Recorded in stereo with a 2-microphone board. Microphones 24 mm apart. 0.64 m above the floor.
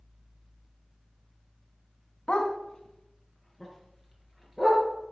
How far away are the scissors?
No scissors in this recording.